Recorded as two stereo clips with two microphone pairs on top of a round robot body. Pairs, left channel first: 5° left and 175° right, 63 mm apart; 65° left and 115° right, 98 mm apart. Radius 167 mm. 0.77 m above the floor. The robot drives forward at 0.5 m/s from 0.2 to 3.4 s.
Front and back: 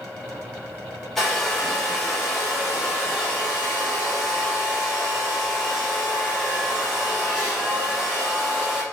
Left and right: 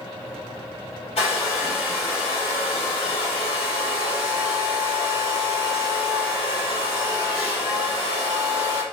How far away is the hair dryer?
About 4 m.